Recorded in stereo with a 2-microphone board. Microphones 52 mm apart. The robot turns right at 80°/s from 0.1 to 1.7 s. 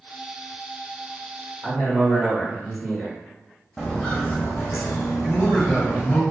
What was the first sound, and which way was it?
A man speaking, 5° left (ahead or behind).